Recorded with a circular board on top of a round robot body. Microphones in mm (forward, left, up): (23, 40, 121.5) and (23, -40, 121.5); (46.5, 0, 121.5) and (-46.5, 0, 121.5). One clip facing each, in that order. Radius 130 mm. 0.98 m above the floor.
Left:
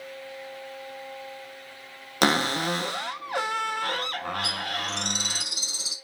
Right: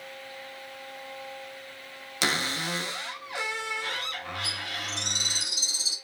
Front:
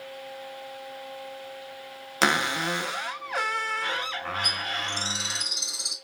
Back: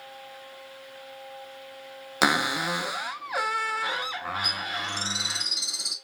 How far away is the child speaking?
I don't hear a child speaking.